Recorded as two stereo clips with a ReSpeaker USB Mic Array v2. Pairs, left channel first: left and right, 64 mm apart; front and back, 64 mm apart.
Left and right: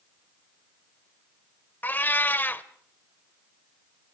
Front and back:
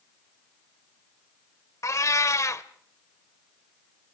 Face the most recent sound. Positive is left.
turn(degrees=30)